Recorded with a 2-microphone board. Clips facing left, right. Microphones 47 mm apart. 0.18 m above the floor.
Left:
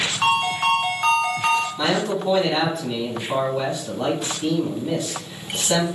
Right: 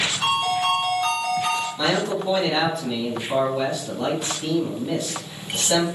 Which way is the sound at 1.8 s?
15° left (ahead or behind).